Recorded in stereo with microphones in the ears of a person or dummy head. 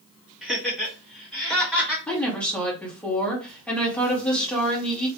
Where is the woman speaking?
10° left (ahead or behind), 1.2 m.